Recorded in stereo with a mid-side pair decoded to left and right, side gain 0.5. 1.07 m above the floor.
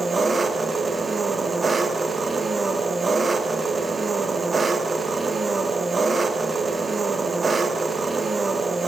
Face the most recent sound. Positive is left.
turn(degrees=-35)